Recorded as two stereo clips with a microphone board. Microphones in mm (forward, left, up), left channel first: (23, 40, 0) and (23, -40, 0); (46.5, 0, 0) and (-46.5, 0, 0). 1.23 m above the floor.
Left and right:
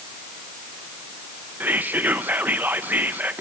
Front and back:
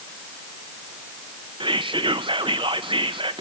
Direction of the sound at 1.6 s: 155° right.